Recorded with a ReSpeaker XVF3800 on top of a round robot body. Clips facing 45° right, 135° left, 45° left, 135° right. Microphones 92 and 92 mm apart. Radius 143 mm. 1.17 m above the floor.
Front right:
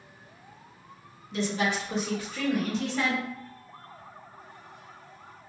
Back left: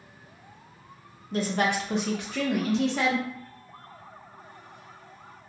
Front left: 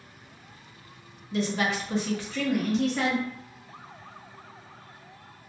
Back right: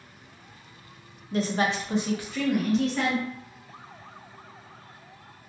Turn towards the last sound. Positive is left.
turn(degrees=130)